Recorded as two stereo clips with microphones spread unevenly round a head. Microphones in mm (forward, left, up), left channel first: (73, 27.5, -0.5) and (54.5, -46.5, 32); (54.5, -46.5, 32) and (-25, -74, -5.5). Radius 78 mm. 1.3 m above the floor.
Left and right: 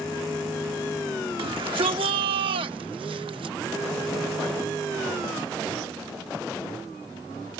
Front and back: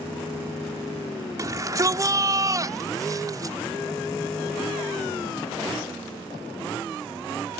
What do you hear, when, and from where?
1.4 s a shout: 110° right